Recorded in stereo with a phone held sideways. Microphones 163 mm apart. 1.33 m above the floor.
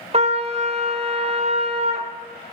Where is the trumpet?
40° right (ahead or behind), 0.7 m.